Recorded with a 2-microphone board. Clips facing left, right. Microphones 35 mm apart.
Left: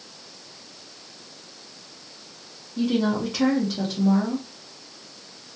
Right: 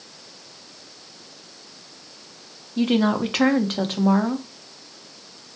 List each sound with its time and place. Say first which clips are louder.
2.8 s a woman speaking: right 3 dB; 55° right (ahead or behind), 0.6 m